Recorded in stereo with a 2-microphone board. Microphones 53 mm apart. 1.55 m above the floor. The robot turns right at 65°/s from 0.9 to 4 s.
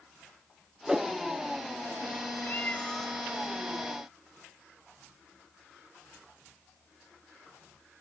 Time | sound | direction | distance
0.9 | a whoosh | 10° right (ahead or behind) | 0.5 m
2.4 | a cat meowing | 130° left | 4.5 m